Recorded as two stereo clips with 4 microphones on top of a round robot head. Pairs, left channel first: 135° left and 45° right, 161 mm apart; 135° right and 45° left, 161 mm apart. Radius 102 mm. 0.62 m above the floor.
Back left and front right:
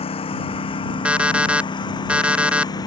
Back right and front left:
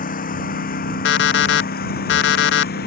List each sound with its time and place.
0.0 s a lawn mower: 170° right; by 2.9 s 160° right
1.1 s an alarm clock: 130° right